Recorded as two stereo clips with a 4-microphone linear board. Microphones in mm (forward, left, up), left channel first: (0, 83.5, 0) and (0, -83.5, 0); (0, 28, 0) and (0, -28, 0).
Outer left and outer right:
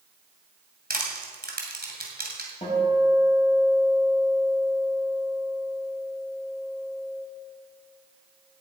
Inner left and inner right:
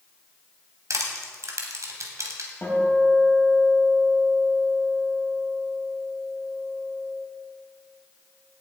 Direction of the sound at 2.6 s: 40° left (ahead or behind).